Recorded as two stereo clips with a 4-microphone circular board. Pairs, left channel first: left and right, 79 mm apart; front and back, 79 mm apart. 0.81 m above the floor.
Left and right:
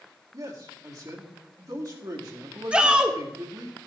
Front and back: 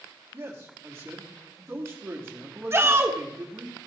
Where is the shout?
160° right, 1.1 m.